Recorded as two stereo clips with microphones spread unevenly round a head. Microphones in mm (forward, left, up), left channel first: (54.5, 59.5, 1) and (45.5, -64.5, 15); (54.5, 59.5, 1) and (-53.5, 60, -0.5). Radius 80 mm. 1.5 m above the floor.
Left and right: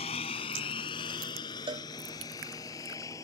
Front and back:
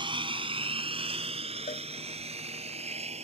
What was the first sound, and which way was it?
A lawn mower, 140° left.